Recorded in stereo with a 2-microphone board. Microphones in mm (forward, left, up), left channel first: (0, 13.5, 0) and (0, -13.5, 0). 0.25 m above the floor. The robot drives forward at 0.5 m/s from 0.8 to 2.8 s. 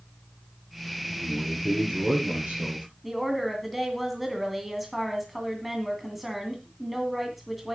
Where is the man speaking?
40° right (ahead or behind), 6.5 m; by 2.9 s 45° right (ahead or behind), 5.5 m.